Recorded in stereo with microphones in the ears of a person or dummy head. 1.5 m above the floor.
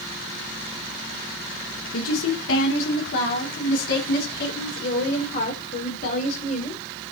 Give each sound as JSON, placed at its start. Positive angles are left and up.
{"t": 1.9, "sound": "a woman speaking", "side_deg": 85, "distance_m": 4.0}